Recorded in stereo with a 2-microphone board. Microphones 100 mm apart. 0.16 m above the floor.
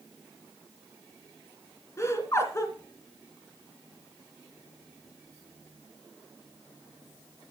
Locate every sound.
2.0 s laughter: 30° left (ahead or behind), 2.5 m